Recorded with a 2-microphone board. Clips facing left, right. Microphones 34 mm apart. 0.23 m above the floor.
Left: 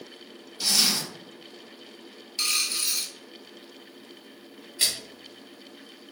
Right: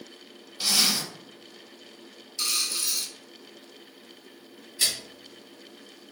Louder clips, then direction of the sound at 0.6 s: Even; 20° right (ahead or behind).